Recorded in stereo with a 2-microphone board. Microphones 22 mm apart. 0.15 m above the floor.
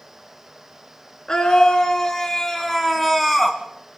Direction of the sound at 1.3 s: 30° left (ahead or behind).